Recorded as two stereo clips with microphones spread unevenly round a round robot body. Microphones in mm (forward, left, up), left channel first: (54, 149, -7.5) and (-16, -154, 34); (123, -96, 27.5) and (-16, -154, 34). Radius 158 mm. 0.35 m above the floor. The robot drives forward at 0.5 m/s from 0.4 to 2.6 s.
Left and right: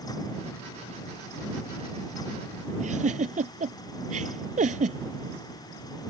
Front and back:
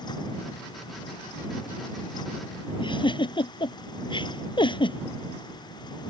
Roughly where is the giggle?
Ahead right.